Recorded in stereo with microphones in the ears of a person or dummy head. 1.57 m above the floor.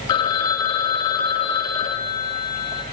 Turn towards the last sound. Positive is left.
turn(degrees=30)  # may be behind; listen again after turning